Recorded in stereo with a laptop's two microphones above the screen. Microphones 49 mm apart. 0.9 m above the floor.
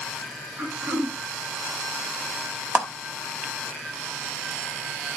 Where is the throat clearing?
80° right, 7 m.